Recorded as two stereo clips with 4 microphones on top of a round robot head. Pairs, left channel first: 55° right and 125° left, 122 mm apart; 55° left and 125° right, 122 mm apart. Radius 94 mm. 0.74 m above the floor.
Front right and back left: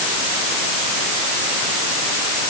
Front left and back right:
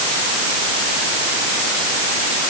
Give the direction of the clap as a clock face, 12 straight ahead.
No clap in this recording.